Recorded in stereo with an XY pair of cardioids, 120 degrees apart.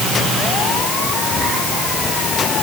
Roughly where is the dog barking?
No dog barking in this recording.